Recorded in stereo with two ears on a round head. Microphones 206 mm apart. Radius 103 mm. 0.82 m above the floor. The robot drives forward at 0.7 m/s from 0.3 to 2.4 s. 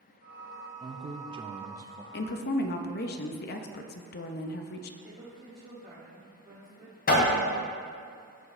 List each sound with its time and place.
0.8 s a man speaking: 20° right (ahead or behind), 0.5 m; by 2.0 s 15° right (ahead or behind), 0.8 m
2.1 s a woman speaking: 45° left (ahead or behind), 0.6 m
5.0 s a woman speaking: 25° right (ahead or behind), 1.8 m
7.1 s hammering: 45° left (ahead or behind), 2 m